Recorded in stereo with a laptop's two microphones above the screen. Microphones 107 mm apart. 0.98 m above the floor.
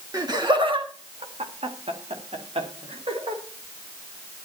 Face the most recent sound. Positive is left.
turn(degrees=-60)  # may be behind; listen again after turning